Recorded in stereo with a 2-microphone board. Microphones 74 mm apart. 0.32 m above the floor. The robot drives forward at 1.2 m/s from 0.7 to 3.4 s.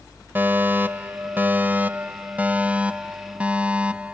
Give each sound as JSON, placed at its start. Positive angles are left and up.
{"t": 0.3, "sound": "a fire alarm", "side_deg": -25}